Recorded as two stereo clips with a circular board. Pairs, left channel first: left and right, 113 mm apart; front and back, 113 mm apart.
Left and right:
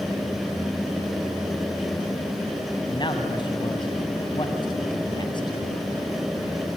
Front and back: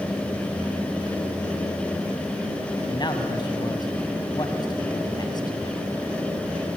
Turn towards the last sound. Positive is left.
turn(degrees=45)